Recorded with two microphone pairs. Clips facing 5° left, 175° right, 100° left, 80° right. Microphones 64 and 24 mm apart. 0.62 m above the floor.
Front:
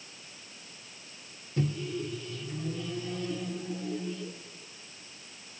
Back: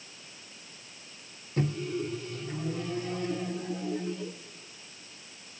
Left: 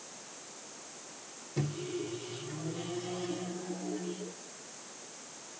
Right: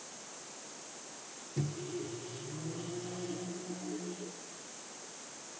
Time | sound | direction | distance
1.6 | a microwave | 150° left | 1.3 m